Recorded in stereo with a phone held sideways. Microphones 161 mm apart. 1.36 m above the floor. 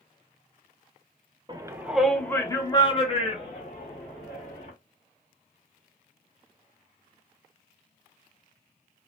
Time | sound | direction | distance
1.5 | a shout | 25° right (ahead or behind) | 0.6 m